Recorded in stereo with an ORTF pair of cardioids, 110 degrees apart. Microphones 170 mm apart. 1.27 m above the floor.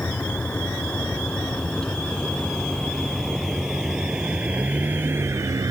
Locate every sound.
0.0 s a vehicle: 10° left; by 5.7 s 20° right